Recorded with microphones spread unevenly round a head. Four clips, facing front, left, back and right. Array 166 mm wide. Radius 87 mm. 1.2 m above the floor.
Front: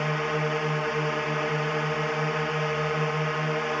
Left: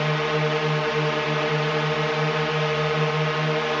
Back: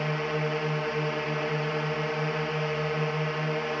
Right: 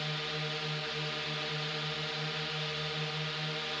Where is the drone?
75° left.